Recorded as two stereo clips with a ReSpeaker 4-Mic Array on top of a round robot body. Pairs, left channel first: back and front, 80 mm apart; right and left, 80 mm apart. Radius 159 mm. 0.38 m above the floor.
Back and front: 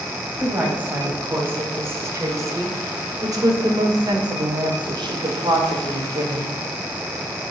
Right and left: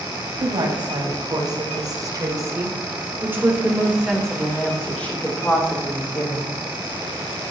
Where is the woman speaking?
70° left, 4 m; by 6.6 s 40° right, 3 m.